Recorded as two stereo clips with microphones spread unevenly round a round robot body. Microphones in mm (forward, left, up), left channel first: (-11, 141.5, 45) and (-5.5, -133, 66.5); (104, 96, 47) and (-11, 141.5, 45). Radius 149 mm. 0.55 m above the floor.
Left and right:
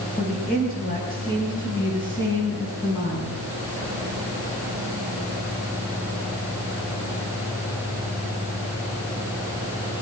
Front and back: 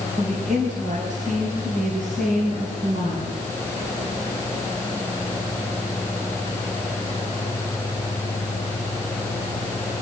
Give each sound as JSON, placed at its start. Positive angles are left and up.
{"t": 0.2, "sound": "a woman speaking", "azimuth_deg": 150, "distance_m": 5.0}